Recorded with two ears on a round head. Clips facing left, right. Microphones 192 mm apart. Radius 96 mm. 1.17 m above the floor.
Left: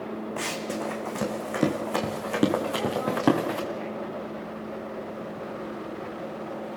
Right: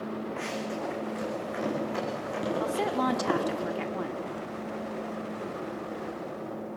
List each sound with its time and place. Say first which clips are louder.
0.4 s running footsteps: left 2 dB; 50° left (ahead or behind), 4.5 m; by 3.6 s 80° left, 6 m
2.6 s a woman speaking: even; 90° right, 2.5 m